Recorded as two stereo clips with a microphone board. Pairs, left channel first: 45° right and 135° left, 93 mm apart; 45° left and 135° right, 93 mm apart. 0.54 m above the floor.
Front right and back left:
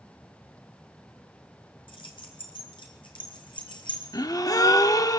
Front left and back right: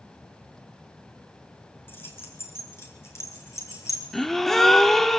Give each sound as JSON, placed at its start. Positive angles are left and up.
{"t": 1.9, "sound": "keys jangling", "azimuth_deg": -25, "distance_m": 6.5}
{"t": 4.1, "sound": "a gasp", "azimuth_deg": -40, "distance_m": 1.2}